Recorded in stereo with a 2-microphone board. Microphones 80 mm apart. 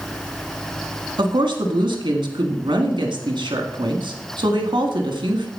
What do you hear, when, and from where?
1.2 s a woman speaking: 85° right, 1.7 m